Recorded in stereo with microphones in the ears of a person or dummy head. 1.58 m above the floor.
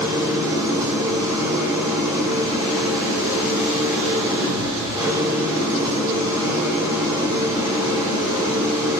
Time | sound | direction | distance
0.0 | an engine running | 20° right (ahead or behind) | 5 m